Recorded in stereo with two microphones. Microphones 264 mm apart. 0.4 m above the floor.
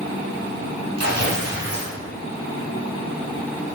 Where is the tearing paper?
65° right (ahead or behind), 1.3 m.